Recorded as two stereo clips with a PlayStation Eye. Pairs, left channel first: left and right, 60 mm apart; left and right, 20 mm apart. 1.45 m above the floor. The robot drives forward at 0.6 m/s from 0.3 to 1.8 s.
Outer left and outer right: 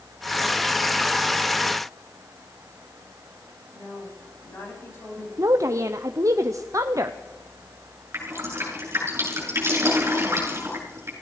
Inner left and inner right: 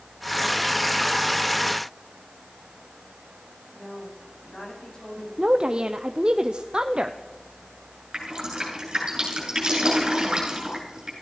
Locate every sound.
3.7 s a woman speaking: 40° left (ahead or behind), 8.5 m
5.4 s a woman speaking: 55° right (ahead or behind), 0.7 m
8.1 s dripping: 45° right (ahead or behind), 7 m